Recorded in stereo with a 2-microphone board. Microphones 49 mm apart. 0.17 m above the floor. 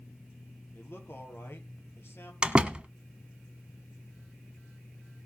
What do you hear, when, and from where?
0.7 s a man speaking: 55° left (ahead or behind), 5.5 m; by 2.3 s 60° left (ahead or behind), 5 m
2.4 s a door slam: 20° right (ahead or behind), 1.2 m